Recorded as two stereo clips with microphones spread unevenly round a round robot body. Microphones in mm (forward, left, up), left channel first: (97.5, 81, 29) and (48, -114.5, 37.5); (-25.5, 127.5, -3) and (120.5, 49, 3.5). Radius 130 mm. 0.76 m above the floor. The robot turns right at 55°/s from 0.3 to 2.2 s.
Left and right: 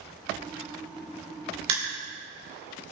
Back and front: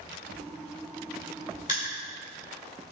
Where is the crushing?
150° right, 1.8 m; by 1.9 s 135° right, 1.8 m.